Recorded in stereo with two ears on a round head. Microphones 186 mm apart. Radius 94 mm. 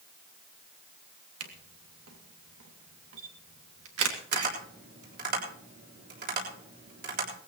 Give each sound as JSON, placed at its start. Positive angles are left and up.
{"t": 1.4, "sound": "a camera shutter", "side_deg": -80, "distance_m": 2.5}
{"t": 4.3, "sound": "tapping", "side_deg": -55, "distance_m": 7.0}